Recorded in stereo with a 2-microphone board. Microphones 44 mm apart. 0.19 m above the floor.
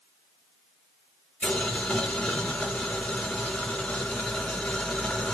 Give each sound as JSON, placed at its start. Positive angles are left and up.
{"t": 1.4, "sound": "boiling", "side_deg": 10, "distance_m": 2.5}